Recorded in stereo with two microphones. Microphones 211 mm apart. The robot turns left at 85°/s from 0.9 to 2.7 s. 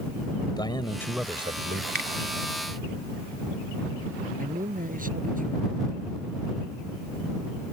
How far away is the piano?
No piano in this recording.